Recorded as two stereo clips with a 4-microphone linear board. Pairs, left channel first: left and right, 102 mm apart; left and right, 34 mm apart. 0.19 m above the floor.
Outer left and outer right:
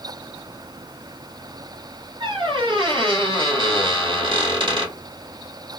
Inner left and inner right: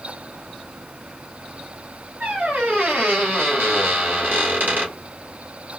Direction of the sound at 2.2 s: 60° right (ahead or behind).